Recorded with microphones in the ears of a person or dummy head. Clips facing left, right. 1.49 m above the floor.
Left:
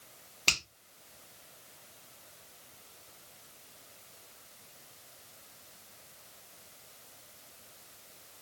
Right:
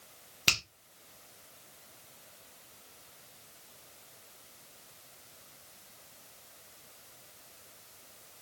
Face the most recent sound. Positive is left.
turn(degrees=-10)  # may be behind; listen again after turning